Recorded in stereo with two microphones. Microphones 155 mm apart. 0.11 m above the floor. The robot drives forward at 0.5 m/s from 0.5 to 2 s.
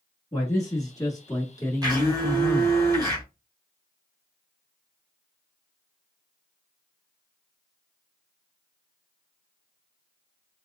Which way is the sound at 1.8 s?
25° right (ahead or behind).